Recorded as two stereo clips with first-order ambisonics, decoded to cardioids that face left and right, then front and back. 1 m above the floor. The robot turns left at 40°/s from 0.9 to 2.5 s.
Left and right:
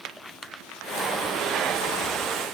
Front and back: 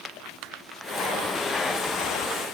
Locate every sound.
Only background noise.